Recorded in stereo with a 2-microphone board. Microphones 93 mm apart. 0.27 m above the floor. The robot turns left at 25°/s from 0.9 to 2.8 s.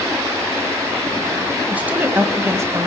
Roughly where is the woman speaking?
Centre.